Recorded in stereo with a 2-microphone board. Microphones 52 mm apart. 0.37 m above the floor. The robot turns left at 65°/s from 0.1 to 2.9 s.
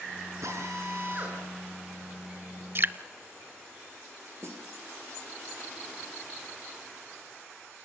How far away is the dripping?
About 0.6 m.